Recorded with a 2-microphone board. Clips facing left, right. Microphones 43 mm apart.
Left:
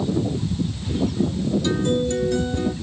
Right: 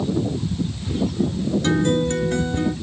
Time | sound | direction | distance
1.6 | a guitar | 50° right (ahead or behind) | 0.9 m